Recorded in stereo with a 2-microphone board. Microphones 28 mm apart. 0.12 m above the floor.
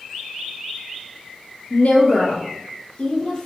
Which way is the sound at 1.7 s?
60° left (ahead or behind).